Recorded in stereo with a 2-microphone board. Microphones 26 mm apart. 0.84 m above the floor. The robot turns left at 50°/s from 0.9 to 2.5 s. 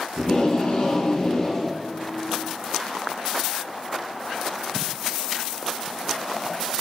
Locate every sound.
0.2 s tape being pulled: 45° left, 7.5 m; by 1.8 s 5° left, 7.5 m